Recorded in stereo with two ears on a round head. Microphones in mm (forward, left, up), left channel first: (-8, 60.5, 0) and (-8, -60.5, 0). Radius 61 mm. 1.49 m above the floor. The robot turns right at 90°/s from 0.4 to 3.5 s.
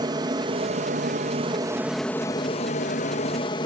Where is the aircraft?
140° right; by 3.6 s 135° left.